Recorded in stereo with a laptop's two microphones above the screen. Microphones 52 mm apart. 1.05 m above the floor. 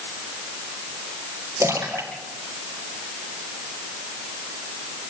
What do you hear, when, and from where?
1.6 s a splash: 65° right (ahead or behind), 4.5 m